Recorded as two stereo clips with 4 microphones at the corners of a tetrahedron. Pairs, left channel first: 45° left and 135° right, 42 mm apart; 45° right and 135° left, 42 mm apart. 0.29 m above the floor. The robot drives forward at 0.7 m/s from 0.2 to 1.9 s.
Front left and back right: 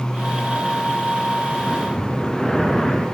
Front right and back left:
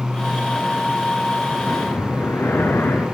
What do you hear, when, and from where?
1.6 s breathing: 35° right, 4 m; by 3.1 s 40° right, 3.5 m